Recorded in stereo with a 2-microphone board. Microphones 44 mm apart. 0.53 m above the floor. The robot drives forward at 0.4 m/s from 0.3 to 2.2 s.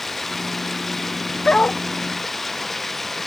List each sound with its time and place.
0.0 s running water: 5° left (ahead or behind)
1.4 s a dog barking: 25° left (ahead or behind)